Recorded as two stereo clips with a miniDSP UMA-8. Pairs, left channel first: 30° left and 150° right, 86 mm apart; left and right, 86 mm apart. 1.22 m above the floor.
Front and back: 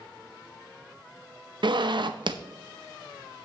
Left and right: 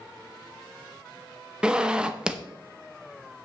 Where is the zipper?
170° right, 0.7 m.